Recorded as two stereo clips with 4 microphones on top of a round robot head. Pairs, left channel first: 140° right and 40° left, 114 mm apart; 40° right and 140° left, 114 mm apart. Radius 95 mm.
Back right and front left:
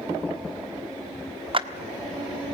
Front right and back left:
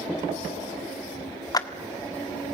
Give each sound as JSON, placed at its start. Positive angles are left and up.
{"t": 1.5, "sound": "a clap", "azimuth_deg": 10, "distance_m": 1.5}